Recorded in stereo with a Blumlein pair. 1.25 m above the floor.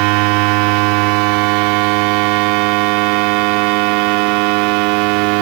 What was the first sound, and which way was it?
A machine running, 45° right.